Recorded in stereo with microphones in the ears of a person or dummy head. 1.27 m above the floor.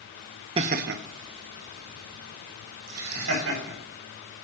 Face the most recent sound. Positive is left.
turn(degrees=-80)